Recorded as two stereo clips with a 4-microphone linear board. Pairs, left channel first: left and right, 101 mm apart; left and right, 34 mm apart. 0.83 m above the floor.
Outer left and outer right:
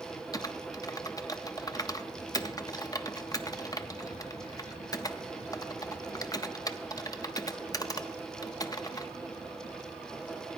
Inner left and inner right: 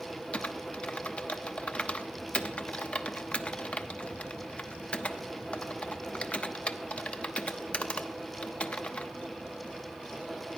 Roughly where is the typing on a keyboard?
Left.